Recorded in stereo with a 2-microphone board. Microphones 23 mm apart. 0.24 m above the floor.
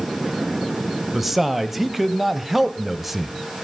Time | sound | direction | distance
1.1 | a man speaking | 5° right (ahead or behind) | 0.9 m